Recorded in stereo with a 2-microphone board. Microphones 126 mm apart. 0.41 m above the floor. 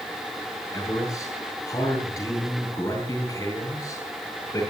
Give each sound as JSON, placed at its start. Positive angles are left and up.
{"t": 0.7, "sound": "a man speaking", "side_deg": 25, "distance_m": 8.0}